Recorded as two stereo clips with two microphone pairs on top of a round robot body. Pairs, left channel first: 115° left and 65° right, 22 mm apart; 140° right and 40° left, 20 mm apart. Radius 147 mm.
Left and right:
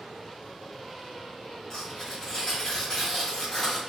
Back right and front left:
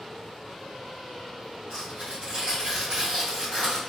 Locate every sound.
1.7 s tearing paper: 30° left, 0.5 m